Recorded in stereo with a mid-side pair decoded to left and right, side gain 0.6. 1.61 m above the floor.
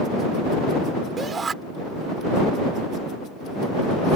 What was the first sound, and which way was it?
A shout, 30° right.